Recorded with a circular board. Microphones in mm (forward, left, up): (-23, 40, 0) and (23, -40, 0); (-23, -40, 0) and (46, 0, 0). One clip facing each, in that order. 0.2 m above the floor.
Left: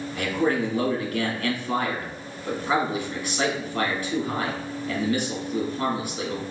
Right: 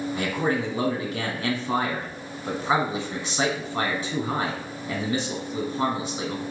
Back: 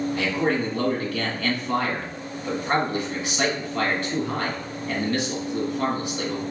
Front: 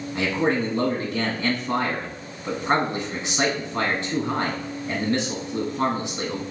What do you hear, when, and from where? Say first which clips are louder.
0.1 s a man speaking: left 4 dB, front 4 dB; 15° right, 1.5 m